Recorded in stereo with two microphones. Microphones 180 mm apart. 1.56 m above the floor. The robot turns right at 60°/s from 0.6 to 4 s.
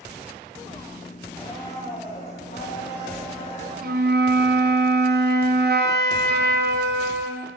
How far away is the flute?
About 0.7 m.